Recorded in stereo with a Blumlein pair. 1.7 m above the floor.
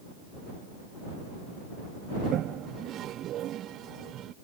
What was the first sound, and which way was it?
A toilet flushing, 30° right.